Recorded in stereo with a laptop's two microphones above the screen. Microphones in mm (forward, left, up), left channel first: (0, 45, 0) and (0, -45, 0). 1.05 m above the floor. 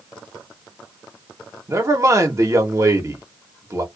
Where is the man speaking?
35° right (ahead or behind), 1.0 m.